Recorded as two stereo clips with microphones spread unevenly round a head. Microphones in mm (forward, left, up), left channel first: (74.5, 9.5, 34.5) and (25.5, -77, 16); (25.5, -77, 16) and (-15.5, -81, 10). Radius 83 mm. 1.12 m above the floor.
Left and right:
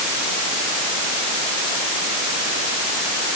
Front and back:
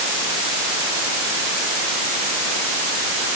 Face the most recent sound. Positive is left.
No sound to turn to.